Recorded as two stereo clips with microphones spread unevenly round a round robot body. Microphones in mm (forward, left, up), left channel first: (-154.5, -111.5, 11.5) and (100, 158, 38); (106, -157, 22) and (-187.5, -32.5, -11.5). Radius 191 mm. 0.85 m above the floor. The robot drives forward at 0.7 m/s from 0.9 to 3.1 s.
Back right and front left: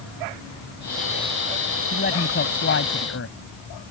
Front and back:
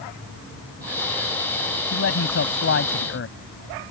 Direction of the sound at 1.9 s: 65° right.